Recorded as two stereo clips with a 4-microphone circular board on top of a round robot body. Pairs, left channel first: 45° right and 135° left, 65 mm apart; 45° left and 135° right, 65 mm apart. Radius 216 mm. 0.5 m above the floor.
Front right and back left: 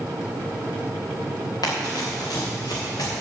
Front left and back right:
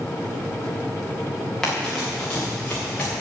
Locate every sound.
1.6 s running footsteps: 35° right, 4.5 m; by 3.1 s 25° right, 5.5 m